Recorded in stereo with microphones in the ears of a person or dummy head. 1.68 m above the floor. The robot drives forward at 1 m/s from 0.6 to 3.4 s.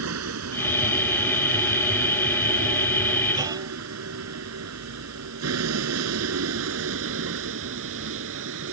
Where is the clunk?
20° right (ahead or behind).